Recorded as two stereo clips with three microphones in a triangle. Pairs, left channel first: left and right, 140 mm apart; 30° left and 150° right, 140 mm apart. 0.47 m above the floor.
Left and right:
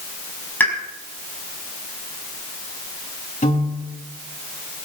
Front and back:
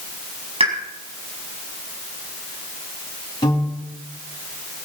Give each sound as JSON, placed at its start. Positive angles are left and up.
{"t": 0.6, "sound": "a pop", "azimuth_deg": 165, "distance_m": 4.5}
{"t": 3.4, "sound": "a piano", "azimuth_deg": 85, "distance_m": 4.0}